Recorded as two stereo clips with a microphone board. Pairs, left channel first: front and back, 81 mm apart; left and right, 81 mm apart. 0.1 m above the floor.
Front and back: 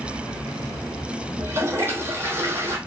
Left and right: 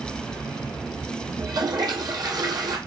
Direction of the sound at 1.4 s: 120° right.